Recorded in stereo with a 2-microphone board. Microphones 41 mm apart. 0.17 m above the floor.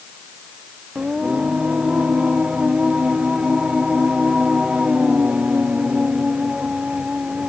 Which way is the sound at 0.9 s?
25° right (ahead or behind).